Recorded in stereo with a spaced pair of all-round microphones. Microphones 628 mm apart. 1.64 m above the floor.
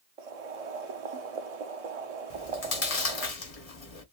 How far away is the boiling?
About 0.7 m.